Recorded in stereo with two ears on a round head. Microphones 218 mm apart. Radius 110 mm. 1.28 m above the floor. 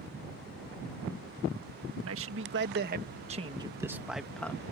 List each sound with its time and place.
2.0 s a man speaking: 60° right (ahead or behind); by 4.6 s 10° left (ahead or behind)